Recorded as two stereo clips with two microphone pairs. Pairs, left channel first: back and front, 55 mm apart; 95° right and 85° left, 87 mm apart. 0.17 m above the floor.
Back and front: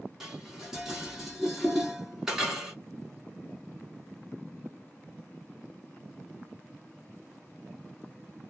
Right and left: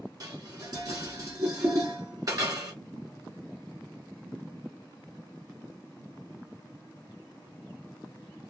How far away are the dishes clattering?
About 1.3 m.